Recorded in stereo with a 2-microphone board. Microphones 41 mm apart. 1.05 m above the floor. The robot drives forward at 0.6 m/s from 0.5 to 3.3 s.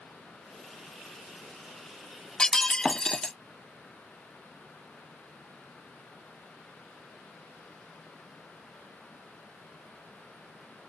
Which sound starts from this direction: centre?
Breaking glass, at 2.4 s.